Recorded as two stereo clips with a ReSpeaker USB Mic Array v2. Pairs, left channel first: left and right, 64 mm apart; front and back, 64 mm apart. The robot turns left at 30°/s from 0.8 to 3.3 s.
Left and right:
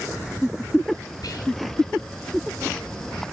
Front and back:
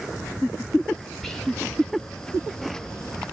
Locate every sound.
1.2 s whispering: 85° left, 4.5 m; by 1.5 s 80° left, 4.5 m